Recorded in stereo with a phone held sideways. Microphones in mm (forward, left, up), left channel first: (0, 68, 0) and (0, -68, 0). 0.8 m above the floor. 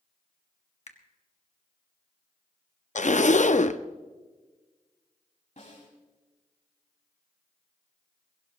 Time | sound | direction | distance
0.9 | a finger snap | 55° left (ahead or behind) | 1.4 m
3.0 | a zipper | 65° left (ahead or behind) | 0.6 m
5.6 | a snare drum | 65° left (ahead or behind) | 5 m